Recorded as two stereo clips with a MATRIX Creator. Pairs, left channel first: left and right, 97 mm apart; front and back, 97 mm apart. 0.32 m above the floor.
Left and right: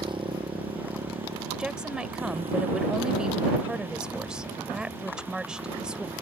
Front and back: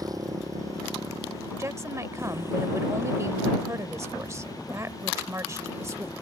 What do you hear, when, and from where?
0.0 s a motorcycle: 130° right; by 6.2 s 110° right
1.6 s a woman speaking: 165° right